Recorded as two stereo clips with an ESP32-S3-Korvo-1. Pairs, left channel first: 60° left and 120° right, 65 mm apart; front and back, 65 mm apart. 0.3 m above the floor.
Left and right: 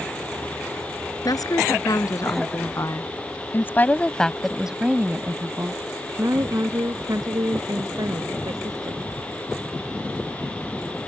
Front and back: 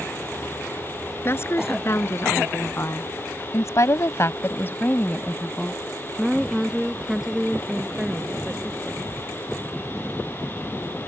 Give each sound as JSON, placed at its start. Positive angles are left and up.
{"t": 1.2, "sound": "a woman speaking", "azimuth_deg": 50}